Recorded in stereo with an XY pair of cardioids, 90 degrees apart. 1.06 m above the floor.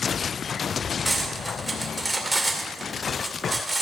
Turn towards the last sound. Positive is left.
turn(degrees=-10)